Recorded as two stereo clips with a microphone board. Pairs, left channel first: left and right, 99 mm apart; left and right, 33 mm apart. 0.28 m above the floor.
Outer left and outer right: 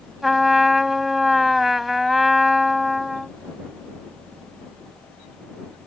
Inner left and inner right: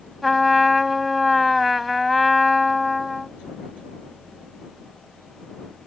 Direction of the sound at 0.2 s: Centre (ahead or behind).